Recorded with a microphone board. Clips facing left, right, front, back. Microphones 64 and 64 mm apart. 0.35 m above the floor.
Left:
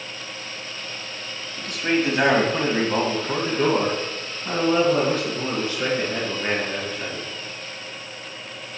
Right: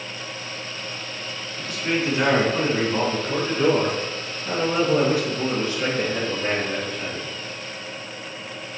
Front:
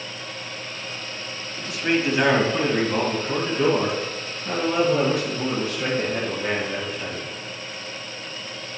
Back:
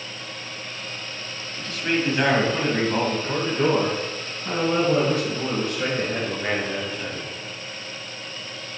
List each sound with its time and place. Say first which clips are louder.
1.6 s a man speaking: left 2 dB, front 2 dB; 70° left, 1.8 m; by 7.3 s 145° left, 4.5 m